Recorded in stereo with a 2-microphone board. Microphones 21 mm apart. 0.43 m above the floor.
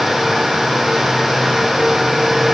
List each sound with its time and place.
Only background noise.